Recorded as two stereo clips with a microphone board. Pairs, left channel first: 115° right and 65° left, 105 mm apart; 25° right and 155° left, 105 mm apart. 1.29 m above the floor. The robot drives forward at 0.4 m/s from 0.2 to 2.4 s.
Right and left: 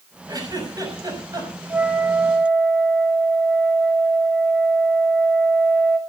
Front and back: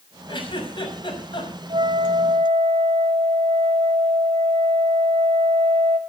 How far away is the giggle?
About 6.5 m.